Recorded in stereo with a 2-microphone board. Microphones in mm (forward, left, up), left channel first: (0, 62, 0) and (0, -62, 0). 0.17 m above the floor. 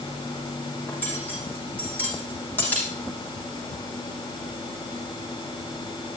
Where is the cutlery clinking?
15° left (ahead or behind), 5.5 m.